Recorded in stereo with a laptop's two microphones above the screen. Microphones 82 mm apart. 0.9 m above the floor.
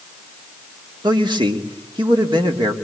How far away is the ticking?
I don't hear ticking.